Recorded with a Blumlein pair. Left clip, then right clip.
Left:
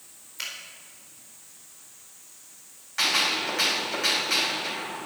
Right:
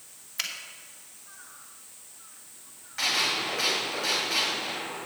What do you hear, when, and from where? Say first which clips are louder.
0.4 s a finger snap: right 2 dB; 45° right, 2.5 m
3.0 s a gunshot: left 2 dB; 15° left, 4.5 m